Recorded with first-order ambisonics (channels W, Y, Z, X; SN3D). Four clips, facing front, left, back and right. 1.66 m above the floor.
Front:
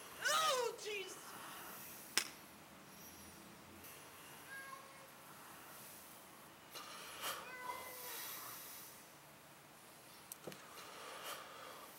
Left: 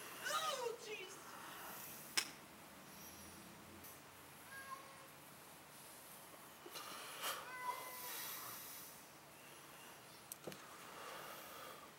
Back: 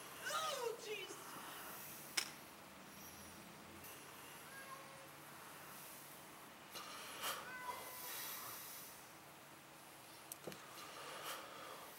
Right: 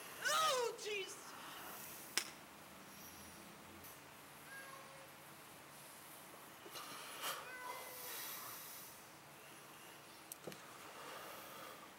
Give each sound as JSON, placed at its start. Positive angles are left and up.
{"t": 0.1, "sound": "a shout", "azimuth_deg": -25, "distance_m": 0.7}
{"t": 2.2, "sound": "breaking glass", "azimuth_deg": -20, "distance_m": 1.6}
{"t": 4.5, "sound": "a cat meowing", "azimuth_deg": -35, "distance_m": 1.8}